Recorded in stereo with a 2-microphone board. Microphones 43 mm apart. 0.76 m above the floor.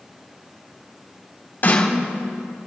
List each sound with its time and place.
1.6 s a snare drum: 50° left (ahead or behind), 3 m